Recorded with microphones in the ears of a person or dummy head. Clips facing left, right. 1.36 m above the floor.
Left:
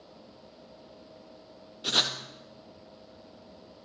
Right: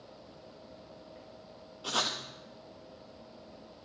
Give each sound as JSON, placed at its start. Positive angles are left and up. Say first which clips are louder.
{"t": 1.8, "sound": "writing", "louder": "left 2 dB", "side_deg": 20, "distance_m": 1.0}